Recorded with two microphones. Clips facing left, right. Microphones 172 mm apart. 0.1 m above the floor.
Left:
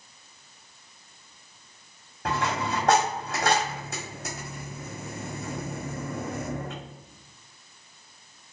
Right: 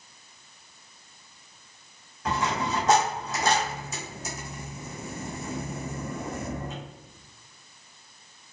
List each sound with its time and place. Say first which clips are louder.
2.2 s a dropped coin: even; 60° left (ahead or behind), 1.4 m